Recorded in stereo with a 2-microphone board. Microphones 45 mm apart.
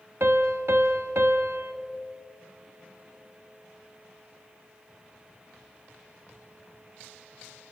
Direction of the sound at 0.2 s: 60° right (ahead or behind).